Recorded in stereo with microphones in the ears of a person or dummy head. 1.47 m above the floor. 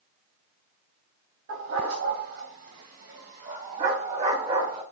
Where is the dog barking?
70° right (ahead or behind), 3 m; by 4.8 s 35° right (ahead or behind), 3 m.